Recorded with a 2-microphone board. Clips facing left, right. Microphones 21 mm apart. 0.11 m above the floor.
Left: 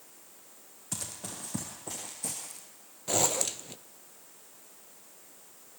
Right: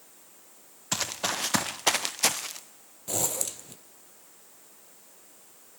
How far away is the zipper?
About 0.6 m.